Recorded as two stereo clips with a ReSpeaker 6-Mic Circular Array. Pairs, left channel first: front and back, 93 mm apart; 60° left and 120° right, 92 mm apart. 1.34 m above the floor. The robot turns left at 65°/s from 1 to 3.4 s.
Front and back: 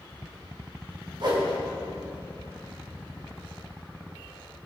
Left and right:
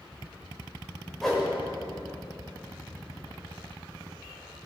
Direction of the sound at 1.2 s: 150° left.